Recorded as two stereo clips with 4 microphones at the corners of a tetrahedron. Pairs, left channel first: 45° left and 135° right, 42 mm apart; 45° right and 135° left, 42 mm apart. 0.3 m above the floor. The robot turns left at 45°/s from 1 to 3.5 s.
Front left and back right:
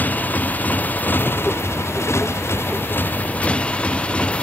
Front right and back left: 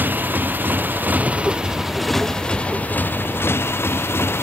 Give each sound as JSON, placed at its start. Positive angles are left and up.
{"t": 0.0, "sound": "a motorcycle", "azimuth_deg": 95}